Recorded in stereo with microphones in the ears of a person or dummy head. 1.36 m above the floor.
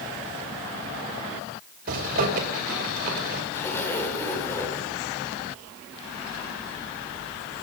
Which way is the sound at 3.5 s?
15° left (ahead or behind).